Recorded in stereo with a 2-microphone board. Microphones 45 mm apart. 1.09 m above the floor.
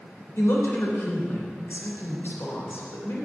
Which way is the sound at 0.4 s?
60° left (ahead or behind).